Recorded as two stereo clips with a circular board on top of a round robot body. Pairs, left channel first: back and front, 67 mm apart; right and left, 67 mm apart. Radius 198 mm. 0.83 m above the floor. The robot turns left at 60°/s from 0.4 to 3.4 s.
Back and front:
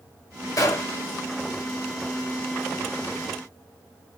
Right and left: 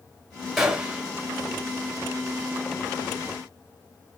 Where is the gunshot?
175° left, 1.4 m; by 1.0 s 150° left, 1.4 m.